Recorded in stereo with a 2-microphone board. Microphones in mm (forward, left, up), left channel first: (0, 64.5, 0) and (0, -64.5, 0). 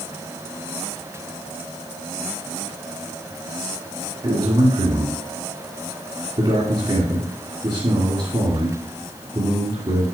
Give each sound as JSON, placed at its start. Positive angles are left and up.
{"t": 4.2, "sound": "a man speaking", "side_deg": -45, "distance_m": 2.5}